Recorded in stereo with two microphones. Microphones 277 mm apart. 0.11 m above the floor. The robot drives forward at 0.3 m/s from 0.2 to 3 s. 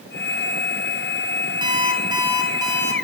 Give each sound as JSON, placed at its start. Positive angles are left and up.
{"t": 1.6, "sound": "an alarm clock", "side_deg": -15, "distance_m": 1.4}